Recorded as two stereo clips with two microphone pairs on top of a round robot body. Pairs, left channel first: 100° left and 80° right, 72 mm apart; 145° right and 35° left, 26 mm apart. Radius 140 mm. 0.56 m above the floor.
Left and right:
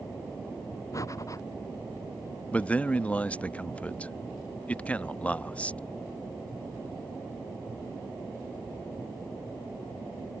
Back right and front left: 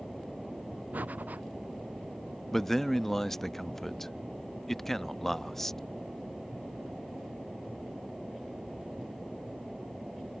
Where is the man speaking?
155° left.